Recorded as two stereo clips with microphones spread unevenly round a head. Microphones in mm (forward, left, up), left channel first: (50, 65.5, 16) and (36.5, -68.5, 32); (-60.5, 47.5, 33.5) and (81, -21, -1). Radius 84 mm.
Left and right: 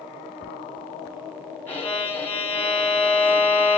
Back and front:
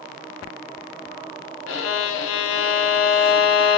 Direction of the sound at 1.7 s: 160° left.